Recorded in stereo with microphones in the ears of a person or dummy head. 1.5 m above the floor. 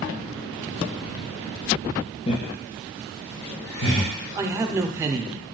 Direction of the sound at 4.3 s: 20° right (ahead or behind).